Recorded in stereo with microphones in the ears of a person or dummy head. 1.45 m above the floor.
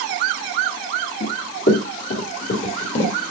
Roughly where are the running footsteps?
Left.